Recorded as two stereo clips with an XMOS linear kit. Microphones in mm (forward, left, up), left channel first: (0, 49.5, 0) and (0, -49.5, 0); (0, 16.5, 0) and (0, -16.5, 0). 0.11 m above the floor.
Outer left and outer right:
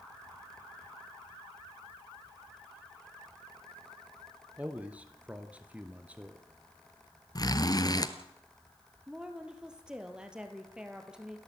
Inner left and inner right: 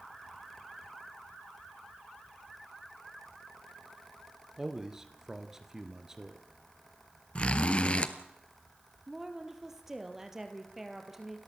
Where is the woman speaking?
10° right (ahead or behind), 2.5 m.